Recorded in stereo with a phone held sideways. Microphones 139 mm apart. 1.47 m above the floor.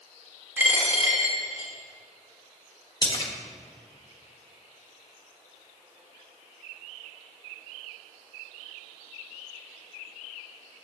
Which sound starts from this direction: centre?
A dropped coin, at 0.6 s.